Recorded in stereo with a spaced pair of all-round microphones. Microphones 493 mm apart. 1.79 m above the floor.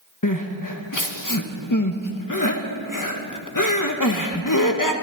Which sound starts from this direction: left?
Crying, at 0.2 s.